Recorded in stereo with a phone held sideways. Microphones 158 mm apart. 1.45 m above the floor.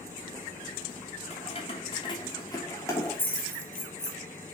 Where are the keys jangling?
45° left (ahead or behind), 2.5 m; by 4.2 s 5° left (ahead or behind), 3 m.